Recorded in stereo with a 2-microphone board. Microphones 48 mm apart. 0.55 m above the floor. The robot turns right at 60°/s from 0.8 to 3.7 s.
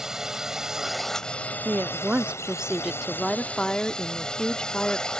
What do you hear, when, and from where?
0.0 s a drone: 15° right; by 5.2 s 160° left
1.6 s a woman speaking: 90° right; by 5.1 s 30° left